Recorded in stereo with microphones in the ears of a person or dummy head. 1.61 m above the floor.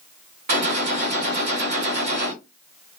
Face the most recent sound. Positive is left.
turn(degrees=-50)  # may be behind; listen again after turning